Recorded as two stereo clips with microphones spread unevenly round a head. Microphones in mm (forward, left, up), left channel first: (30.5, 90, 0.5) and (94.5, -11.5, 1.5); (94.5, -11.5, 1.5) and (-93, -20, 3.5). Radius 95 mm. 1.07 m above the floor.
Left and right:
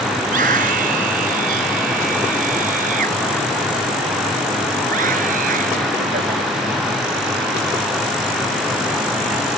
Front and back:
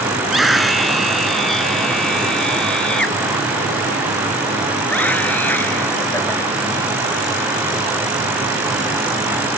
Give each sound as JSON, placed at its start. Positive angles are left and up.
{"t": 0.2, "sound": "a scream", "azimuth_deg": -85}